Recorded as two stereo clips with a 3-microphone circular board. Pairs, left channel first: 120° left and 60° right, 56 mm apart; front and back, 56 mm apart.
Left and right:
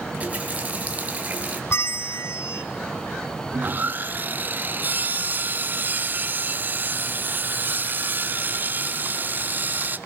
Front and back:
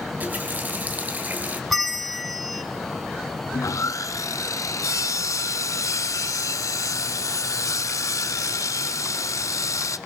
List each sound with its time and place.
0.2 s a running tap: 120° right, 2.5 m
1.7 s a bell: 90° left, 0.7 m
3.5 s sawing: 5° right, 0.7 m